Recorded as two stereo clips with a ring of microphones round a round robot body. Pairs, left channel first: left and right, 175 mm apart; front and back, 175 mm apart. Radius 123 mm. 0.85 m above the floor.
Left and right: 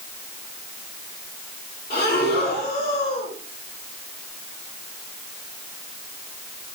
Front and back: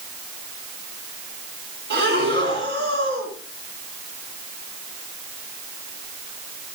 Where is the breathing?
160° left, 3.5 m.